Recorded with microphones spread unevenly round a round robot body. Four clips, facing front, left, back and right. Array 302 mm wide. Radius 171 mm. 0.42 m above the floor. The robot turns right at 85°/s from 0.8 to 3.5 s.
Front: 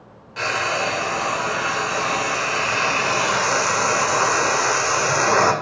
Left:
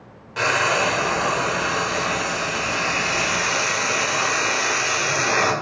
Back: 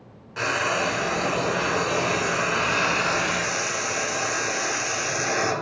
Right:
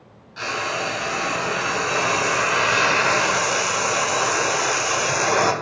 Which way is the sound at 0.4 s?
105° left.